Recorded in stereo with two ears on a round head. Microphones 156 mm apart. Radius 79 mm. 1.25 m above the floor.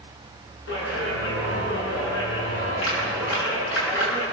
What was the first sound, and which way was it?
A clap, 80° left.